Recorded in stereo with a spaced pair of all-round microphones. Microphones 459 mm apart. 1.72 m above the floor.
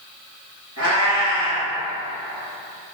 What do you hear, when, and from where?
0.8 s a cat meowing: 35° left (ahead or behind), 2.0 m